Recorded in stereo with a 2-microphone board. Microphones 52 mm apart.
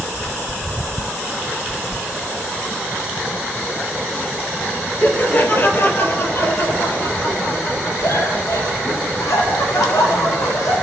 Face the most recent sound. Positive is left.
turn(degrees=80)